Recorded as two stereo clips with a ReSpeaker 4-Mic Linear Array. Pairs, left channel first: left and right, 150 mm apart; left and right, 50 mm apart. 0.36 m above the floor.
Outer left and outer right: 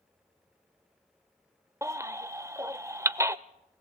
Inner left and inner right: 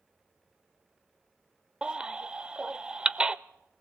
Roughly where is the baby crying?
Centre.